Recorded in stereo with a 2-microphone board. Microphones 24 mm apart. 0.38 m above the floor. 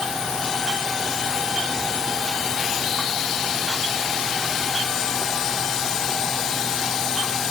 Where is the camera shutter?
No camera shutter in this recording.